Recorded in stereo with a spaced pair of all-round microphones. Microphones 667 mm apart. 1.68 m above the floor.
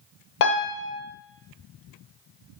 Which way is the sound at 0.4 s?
75° left (ahead or behind).